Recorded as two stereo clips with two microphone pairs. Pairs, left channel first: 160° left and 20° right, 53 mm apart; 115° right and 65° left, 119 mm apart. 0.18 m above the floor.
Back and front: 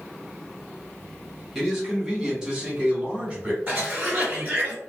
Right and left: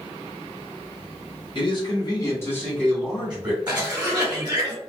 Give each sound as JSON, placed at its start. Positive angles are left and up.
{"t": 1.6, "sound": "a man speaking", "azimuth_deg": -105, "distance_m": 1.7}
{"t": 3.7, "sound": "a cough", "azimuth_deg": 15, "distance_m": 1.1}